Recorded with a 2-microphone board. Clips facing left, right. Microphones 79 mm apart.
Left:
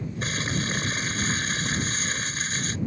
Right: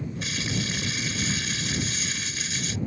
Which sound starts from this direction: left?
Crumpling, at 0.2 s.